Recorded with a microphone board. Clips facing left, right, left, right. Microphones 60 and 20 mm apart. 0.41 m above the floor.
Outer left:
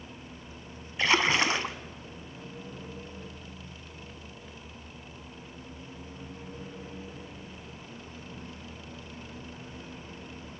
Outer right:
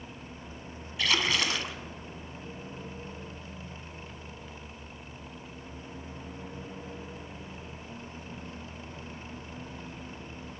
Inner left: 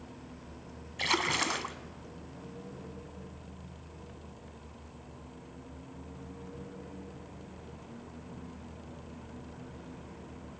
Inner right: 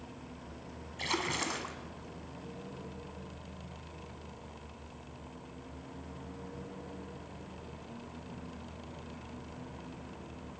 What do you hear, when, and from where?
1.0 s a splash: 30° left (ahead or behind), 1.1 m